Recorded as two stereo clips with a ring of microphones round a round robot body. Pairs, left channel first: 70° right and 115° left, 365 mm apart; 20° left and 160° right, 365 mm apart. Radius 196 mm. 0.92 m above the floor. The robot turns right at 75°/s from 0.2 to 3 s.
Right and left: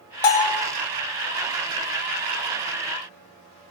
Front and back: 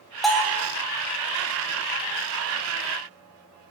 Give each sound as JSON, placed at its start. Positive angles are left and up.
{"t": 0.2, "sound": "a bell", "azimuth_deg": -70, "distance_m": 0.9}